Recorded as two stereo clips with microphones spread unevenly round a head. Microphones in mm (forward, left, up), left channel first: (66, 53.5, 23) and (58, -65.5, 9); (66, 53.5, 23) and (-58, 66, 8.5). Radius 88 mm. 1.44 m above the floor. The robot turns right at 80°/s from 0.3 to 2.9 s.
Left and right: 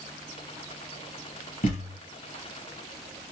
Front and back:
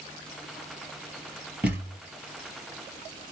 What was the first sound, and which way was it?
A thud, 95° left.